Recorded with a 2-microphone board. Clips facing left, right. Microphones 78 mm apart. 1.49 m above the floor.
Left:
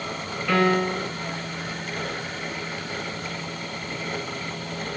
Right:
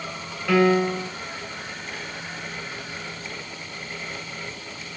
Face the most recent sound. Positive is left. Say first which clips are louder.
# right 2 dB
turn(degrees=0)  # may be behind; listen again after turning